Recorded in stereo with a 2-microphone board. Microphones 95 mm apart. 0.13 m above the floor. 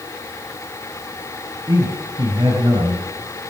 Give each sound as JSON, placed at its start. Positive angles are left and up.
{"t": 1.7, "sound": "a man speaking", "side_deg": -60, "distance_m": 3.5}